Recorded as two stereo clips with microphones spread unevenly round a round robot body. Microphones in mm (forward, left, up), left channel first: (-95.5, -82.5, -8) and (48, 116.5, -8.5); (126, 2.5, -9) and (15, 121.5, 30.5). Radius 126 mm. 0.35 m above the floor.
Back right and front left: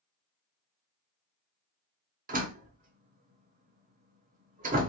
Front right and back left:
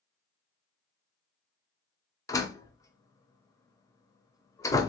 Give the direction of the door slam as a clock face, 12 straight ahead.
12 o'clock.